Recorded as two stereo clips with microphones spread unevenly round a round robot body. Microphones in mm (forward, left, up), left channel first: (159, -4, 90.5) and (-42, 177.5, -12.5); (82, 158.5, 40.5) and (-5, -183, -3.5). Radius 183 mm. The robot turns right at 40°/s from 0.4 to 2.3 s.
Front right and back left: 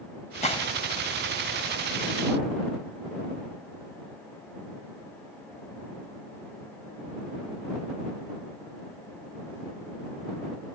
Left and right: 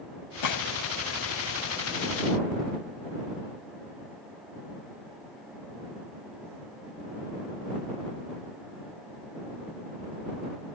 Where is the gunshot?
30° left; by 0.7 s 40° left.